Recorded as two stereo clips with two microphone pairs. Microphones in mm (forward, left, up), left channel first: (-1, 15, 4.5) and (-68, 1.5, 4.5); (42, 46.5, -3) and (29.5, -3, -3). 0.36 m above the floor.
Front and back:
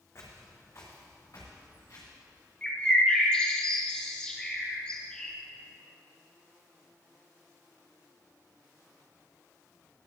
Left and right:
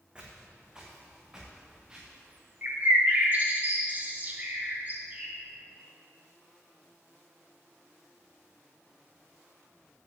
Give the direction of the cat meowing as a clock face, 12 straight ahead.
No cat meowing in this recording.